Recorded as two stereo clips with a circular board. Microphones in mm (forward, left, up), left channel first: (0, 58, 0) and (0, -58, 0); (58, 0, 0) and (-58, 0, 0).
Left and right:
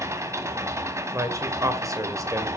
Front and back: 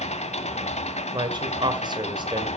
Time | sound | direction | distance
0.0 | an engine running | 25° right | 1.3 m
1.1 | a man speaking | 145° right | 1.8 m